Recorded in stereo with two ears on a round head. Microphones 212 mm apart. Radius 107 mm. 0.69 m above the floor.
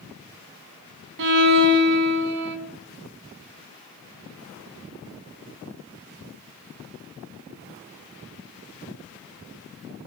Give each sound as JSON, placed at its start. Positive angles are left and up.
{"t": 1.2, "sound": "a violin", "side_deg": -50, "distance_m": 1.9}